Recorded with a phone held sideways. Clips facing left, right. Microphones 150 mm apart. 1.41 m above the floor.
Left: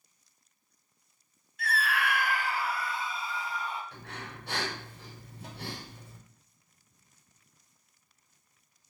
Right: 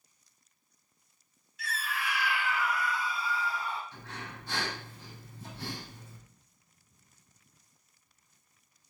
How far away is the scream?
About 0.6 m.